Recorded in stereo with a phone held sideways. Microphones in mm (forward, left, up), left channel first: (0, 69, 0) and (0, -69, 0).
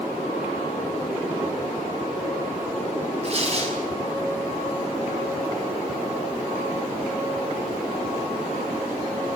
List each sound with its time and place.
3.2 s tearing paper: 45° right (ahead or behind), 6 m